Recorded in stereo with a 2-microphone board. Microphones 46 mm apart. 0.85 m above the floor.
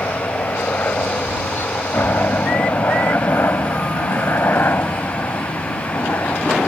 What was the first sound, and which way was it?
A helicopter, 50° left (ahead or behind).